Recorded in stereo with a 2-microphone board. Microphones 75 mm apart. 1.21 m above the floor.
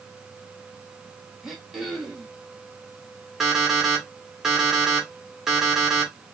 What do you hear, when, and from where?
1.4 s throat clearing: 5° right (ahead or behind), 1.4 m
3.4 s an alarm clock: 5° right (ahead or behind), 2.0 m